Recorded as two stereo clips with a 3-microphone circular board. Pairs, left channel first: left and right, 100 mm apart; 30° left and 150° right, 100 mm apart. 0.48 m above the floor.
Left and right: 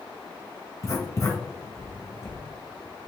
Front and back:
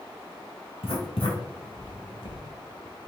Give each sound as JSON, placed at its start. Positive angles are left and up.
{"t": 0.8, "sound": "writing", "azimuth_deg": 35, "distance_m": 1.2}